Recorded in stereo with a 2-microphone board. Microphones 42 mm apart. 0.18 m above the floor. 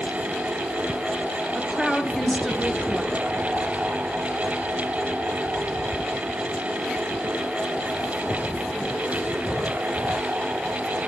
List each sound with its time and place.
1.6 s a woman speaking: 5° left (ahead or behind), 2.5 m